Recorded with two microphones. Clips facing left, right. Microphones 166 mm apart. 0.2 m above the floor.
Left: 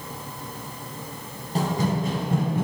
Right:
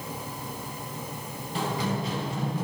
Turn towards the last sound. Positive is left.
turn(degrees=60)  # may be behind; listen again after turning